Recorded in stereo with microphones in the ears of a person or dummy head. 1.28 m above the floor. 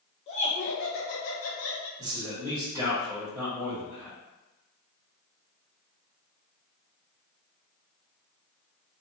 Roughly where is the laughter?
Left.